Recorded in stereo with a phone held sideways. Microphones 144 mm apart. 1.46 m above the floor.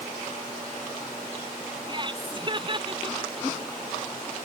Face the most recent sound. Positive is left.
turn(degrees=-35)  # may be behind; listen again after turning